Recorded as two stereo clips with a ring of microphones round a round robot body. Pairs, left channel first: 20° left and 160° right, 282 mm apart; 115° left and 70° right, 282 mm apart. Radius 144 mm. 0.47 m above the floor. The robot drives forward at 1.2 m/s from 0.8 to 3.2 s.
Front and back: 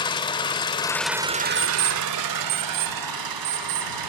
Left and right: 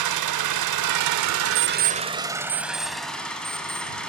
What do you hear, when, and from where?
0.0 s an engine running: 50° right, 1.1 m; by 4.1 s 160° right, 2.5 m
1.6 s an alarm clock: 80° right, 0.8 m; by 3.9 s 155° right, 2.0 m